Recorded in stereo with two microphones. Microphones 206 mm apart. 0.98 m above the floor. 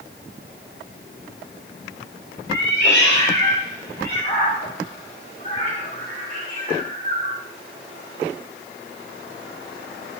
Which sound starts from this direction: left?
A cat meowing, at 2.5 s.